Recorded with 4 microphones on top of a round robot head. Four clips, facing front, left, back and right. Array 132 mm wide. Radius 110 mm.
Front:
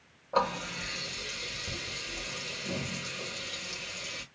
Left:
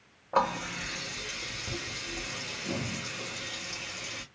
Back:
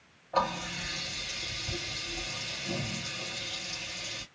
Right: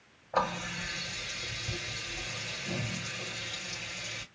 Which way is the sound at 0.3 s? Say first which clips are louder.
Left 3 dB, even; 65° left.